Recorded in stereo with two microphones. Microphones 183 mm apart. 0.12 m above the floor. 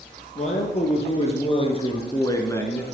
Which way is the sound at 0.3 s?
35° left (ahead or behind).